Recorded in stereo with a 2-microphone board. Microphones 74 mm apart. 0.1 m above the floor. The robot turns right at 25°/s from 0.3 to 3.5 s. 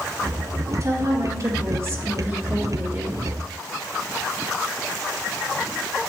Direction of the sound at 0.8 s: 100° right.